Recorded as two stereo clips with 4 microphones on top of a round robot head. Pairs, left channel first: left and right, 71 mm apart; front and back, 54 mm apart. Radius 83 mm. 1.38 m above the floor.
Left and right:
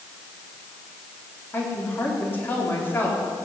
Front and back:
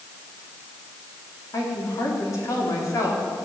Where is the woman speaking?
25° left, 4 m.